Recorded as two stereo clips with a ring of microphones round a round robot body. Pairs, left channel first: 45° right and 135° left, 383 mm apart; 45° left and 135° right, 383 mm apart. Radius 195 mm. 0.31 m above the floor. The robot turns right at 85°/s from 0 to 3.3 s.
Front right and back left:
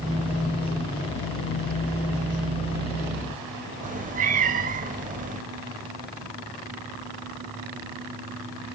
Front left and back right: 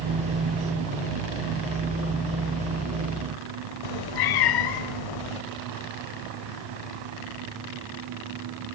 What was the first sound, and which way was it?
A cat meowing, 65° left.